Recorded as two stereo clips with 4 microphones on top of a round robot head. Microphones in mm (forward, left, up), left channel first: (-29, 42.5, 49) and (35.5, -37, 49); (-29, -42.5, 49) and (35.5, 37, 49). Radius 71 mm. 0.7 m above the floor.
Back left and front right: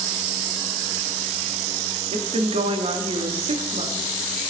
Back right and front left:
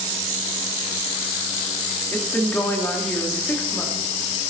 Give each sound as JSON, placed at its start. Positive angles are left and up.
{"t": 2.1, "sound": "a woman speaking", "azimuth_deg": -55, "distance_m": 1.8}